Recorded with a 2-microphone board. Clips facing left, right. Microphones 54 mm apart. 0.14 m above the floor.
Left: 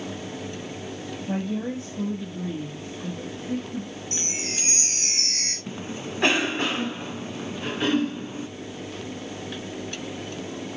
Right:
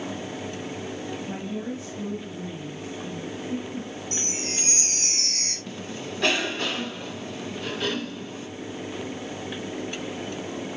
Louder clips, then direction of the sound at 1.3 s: Left 8 dB; 40° left (ahead or behind).